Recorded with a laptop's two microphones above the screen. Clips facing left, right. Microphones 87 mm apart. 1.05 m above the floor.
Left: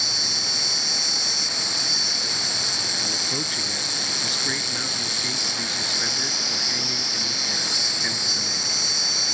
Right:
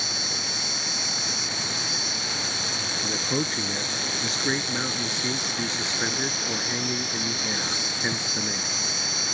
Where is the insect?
30° right (ahead or behind).